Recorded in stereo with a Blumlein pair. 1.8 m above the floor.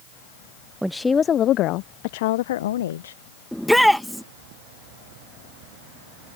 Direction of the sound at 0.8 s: 5° right.